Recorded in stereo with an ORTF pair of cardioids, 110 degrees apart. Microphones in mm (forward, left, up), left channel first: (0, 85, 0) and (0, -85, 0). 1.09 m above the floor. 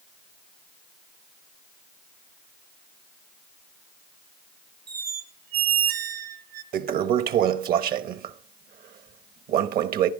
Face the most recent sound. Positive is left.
turn(degrees=-60)